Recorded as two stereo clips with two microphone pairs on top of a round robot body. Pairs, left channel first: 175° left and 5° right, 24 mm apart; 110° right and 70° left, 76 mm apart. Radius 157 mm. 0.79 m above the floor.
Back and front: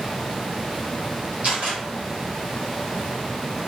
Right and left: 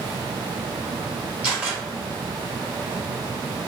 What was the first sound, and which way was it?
A camera shutter, straight ahead.